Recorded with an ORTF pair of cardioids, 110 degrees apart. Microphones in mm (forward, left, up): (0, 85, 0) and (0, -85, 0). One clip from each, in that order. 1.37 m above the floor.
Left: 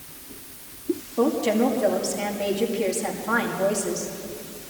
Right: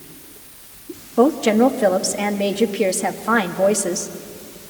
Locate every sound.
1.2 s a woman speaking: 45° right, 1.8 m